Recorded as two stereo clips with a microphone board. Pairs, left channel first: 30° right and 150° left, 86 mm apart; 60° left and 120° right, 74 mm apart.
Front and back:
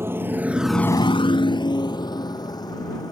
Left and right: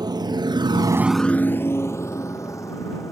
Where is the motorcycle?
150° right; by 3.1 s 10° left.